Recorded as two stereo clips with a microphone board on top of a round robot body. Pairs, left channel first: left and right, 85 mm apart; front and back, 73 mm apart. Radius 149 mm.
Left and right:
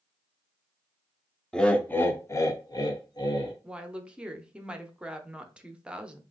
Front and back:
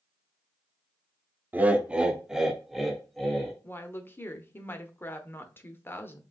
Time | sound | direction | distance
1.5 | laughter | 160° left | 0.9 m
3.6 | a woman speaking | 20° right | 0.9 m